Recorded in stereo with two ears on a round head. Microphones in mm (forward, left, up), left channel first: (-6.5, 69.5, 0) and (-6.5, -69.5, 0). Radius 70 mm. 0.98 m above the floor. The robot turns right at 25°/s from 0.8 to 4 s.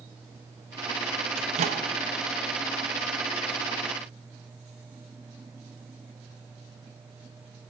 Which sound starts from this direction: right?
A microwave, at 1.4 s.